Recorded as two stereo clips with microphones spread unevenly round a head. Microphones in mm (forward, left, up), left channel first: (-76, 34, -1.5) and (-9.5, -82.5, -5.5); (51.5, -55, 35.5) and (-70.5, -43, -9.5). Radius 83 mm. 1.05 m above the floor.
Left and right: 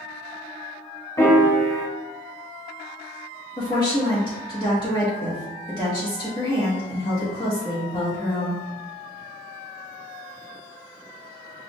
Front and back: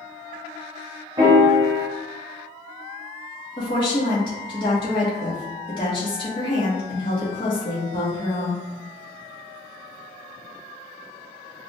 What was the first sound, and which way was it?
A piano, 100° left.